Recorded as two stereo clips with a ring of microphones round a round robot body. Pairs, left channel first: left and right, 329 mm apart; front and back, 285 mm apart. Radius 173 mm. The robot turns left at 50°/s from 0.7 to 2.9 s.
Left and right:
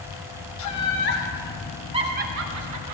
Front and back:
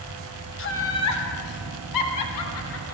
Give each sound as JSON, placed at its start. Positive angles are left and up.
{"t": 0.6, "sound": "laughter", "azimuth_deg": 50, "distance_m": 2.0}